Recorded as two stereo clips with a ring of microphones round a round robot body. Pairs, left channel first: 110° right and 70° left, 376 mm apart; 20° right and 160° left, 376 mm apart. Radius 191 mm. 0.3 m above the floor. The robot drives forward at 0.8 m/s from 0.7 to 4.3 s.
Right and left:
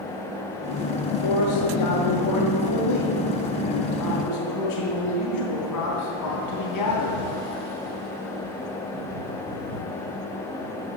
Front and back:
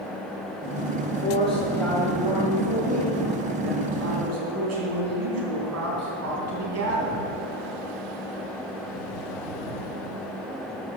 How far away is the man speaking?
About 1.7 m.